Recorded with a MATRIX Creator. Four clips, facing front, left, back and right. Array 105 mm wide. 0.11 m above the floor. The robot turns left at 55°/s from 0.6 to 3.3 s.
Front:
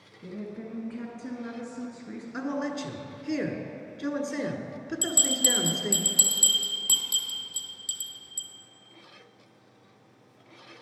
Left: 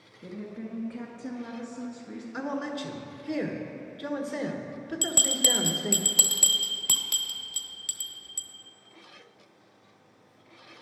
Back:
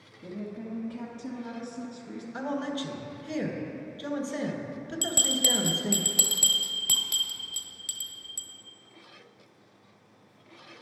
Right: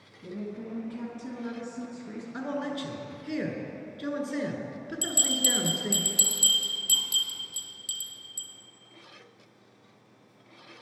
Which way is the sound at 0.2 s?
65° left.